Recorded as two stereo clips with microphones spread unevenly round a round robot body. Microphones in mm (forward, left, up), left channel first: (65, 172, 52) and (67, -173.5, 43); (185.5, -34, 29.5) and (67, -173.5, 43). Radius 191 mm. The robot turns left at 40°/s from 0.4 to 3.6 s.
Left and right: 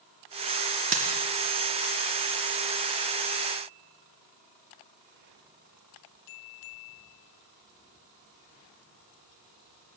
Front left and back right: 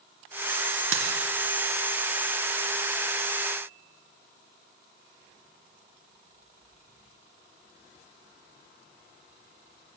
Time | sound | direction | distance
0.9 | a dropped coin | 160° right | 1.8 m